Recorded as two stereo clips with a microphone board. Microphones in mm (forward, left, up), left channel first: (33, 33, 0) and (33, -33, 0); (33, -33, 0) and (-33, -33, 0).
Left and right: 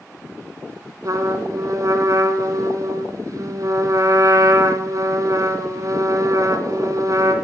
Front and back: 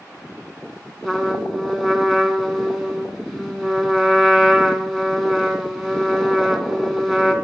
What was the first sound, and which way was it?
A trumpet, 95° right.